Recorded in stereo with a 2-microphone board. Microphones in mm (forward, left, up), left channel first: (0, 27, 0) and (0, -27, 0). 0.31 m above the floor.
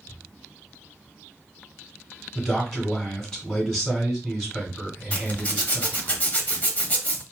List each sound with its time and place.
2.4 s a man speaking: 10° left (ahead or behind), 2.5 m
5.1 s a zipper: 30° left (ahead or behind), 0.8 m